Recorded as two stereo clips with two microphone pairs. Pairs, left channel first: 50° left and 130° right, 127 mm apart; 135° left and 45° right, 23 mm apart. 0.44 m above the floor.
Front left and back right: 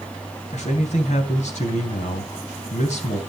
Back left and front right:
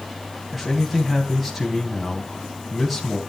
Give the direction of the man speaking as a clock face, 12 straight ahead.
11 o'clock.